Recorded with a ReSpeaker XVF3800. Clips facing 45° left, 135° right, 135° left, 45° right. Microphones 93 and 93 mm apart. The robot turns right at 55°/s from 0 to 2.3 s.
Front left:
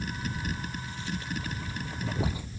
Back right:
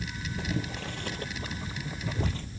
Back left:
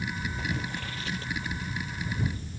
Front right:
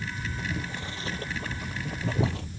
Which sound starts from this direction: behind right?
Boiling, at 0.4 s.